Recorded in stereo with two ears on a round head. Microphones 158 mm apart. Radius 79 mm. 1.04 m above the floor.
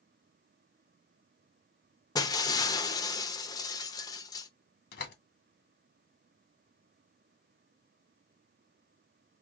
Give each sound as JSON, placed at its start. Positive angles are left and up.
{"t": 2.1, "sound": "breaking glass", "side_deg": 20, "distance_m": 0.7}
{"t": 4.9, "sound": "a door slam", "side_deg": 65, "distance_m": 1.6}